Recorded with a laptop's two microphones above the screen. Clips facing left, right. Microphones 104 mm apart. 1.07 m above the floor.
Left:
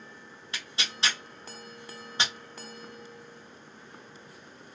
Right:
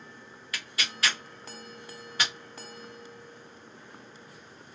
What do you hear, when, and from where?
0.5 s tearing paper: 25° left (ahead or behind), 0.7 m